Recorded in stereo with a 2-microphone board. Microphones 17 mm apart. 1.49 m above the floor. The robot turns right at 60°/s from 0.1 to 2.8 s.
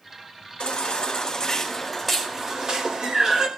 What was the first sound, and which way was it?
A baby crying, 85° left.